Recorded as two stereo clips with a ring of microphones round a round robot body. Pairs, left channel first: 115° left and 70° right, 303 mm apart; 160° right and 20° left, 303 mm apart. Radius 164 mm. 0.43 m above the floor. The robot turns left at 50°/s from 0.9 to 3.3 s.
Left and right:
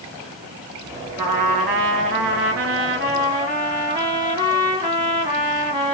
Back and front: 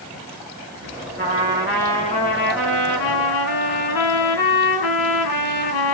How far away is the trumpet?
About 1.8 m.